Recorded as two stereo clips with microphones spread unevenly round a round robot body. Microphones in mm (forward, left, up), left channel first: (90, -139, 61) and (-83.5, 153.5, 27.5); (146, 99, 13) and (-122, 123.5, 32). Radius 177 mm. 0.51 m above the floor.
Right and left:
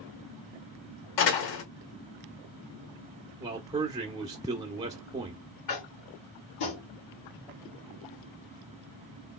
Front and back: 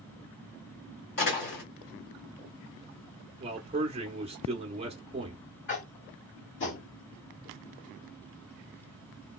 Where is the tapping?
45° right, 1.8 m.